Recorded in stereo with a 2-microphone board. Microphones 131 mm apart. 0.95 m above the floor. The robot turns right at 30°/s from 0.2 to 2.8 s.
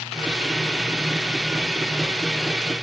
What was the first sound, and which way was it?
Only background noise.